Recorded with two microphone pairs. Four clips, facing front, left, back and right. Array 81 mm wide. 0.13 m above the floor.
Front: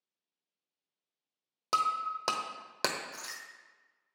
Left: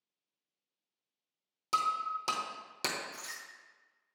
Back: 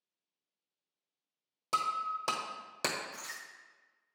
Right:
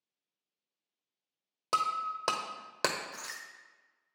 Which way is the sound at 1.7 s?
45° right.